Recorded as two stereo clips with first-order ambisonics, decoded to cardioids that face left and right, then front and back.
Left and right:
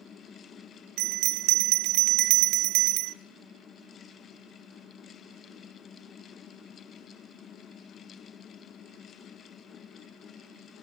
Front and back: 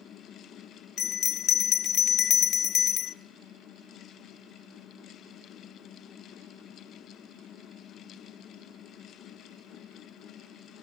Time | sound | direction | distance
1.0 | a bell | 55° right | 0.6 m